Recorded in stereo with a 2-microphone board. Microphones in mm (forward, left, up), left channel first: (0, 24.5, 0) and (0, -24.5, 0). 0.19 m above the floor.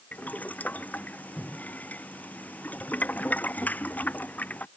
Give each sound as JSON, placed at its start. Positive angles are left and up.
{"t": 0.1, "sound": "boiling", "side_deg": 30}